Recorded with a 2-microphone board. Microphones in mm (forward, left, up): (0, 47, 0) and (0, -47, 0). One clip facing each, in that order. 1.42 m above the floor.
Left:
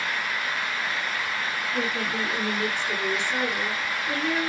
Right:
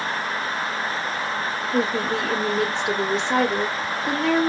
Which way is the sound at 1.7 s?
80° right.